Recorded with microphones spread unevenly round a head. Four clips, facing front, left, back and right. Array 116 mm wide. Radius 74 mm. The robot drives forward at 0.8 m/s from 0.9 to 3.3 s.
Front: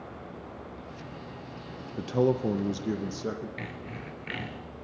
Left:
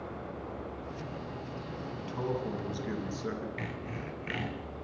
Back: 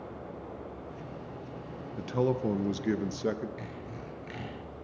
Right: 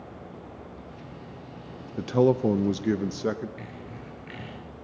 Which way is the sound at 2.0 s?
70° right.